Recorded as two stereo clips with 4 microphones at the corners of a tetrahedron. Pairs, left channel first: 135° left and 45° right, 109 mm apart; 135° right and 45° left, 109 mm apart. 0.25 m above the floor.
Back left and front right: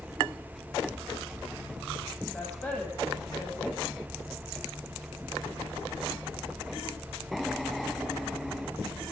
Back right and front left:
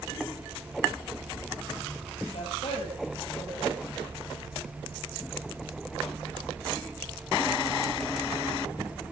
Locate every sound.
2.3 s a woman speaking: 160° right, 7 m